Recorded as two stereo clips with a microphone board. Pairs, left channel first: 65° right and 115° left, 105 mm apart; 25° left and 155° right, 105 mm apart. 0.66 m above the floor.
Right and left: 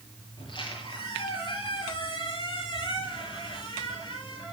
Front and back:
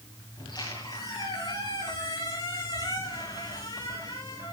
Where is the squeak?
25° right, 8 m.